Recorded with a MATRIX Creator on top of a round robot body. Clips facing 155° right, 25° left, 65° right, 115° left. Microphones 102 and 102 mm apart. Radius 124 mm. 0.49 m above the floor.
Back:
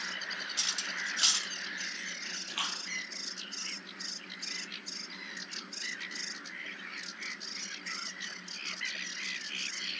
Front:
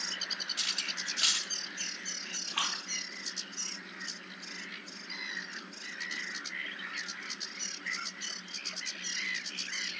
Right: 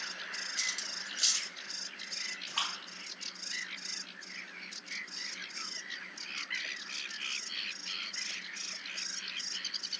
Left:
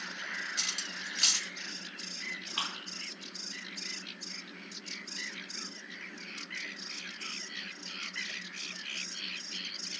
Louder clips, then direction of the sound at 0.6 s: Back 2 dB, left 2 dB; 145° left.